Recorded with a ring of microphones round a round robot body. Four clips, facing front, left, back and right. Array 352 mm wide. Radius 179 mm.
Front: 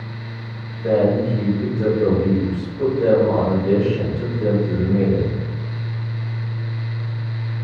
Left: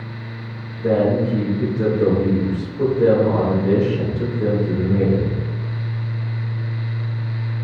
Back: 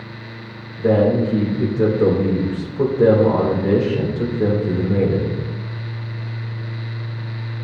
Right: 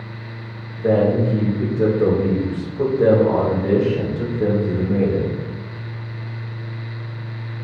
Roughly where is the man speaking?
Behind.